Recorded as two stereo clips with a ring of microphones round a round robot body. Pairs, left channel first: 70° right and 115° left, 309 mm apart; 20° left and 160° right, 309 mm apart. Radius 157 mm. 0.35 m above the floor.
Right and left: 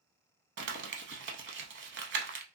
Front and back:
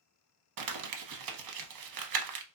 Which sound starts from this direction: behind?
Crumpling, at 0.6 s.